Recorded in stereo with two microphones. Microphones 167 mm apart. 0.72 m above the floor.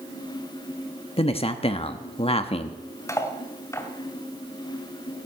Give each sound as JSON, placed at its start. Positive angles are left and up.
{"t": 1.2, "sound": "a man speaking", "side_deg": 35, "distance_m": 1.1}
{"t": 3.1, "sound": "cutlery clinking", "side_deg": 20, "distance_m": 2.5}